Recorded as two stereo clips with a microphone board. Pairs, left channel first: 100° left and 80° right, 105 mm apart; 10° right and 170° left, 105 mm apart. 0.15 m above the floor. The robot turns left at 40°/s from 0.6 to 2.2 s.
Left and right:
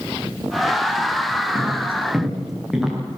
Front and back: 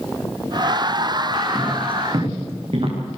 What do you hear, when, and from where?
1.6 s footsteps: 145° right, 7 m; by 3.0 s 165° right, 7.5 m